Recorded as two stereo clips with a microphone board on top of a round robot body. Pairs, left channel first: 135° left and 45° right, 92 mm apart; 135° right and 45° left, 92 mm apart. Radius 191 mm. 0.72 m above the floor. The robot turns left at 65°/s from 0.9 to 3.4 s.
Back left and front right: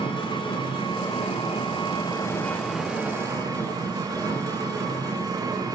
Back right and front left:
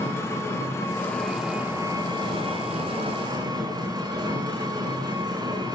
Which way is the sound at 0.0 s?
165° left.